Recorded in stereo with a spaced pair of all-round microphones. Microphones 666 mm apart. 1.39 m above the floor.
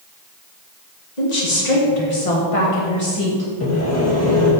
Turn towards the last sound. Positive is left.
turn(degrees=20)  # may be behind; listen again after turning